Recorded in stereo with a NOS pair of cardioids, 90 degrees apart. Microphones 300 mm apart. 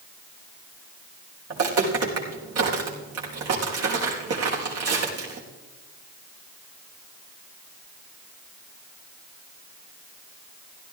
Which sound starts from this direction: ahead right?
Footsteps, at 1.5 s.